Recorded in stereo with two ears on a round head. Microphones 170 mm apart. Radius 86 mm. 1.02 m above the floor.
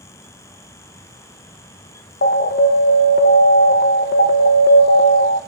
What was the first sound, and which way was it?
An alarm, 55° left (ahead or behind).